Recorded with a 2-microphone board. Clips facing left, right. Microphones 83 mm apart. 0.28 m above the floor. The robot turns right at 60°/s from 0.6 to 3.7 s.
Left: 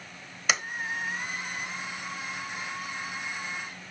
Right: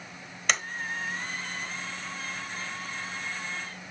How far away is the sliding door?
About 1.0 m.